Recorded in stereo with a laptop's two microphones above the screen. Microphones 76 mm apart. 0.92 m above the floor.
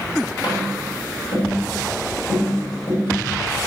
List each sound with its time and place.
0.4 s tapping: 80° left, 6 m